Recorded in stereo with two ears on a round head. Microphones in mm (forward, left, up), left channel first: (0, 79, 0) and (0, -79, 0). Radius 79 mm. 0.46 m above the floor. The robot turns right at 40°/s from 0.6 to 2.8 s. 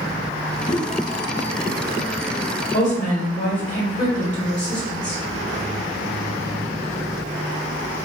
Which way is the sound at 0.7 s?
30° left (ahead or behind).